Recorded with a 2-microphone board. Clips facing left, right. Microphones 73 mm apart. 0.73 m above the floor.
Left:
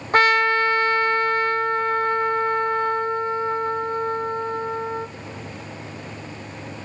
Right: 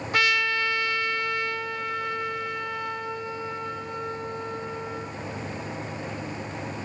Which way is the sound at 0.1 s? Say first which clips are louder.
Left 8 dB; 45° left (ahead or behind).